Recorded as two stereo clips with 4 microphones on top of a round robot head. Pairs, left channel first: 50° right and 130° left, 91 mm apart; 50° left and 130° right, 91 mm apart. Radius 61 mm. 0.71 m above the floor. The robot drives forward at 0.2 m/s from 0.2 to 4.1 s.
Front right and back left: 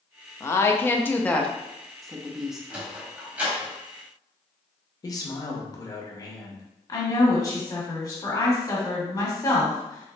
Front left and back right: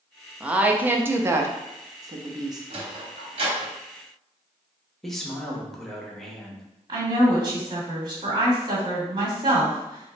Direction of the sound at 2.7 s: 150° right.